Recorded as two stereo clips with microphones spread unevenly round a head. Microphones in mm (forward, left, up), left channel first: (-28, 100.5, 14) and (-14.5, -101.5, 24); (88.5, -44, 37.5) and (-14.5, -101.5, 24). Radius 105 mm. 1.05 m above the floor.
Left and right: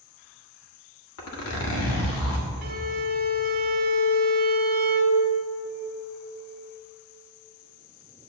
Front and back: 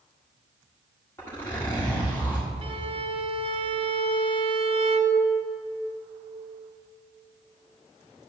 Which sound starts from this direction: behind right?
A violin, at 2.6 s.